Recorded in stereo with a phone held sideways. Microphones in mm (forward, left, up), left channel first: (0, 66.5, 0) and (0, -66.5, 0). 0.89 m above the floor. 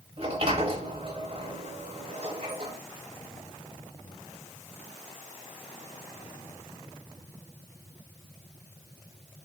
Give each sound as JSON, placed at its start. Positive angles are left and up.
{"t": 0.2, "sound": "a sliding door", "side_deg": -45, "distance_m": 0.9}